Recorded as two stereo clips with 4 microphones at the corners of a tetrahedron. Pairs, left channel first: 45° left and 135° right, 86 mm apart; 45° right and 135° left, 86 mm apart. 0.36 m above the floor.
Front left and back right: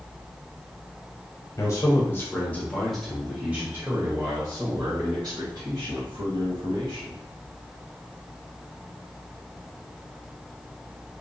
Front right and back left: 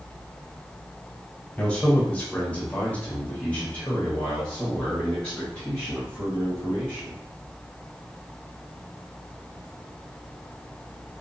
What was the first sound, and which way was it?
A man speaking, 25° left.